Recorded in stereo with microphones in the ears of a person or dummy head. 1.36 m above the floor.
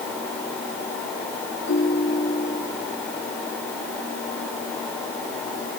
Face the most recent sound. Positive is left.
turn(degrees=65)  # may be behind; listen again after turning